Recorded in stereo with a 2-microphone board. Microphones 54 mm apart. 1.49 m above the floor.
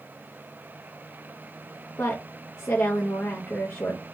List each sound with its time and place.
2.0 s a woman speaking: 45° left (ahead or behind), 0.5 m